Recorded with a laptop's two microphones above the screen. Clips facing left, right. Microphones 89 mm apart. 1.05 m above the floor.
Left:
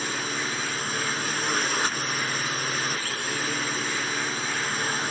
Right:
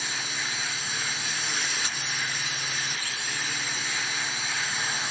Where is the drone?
50° left (ahead or behind).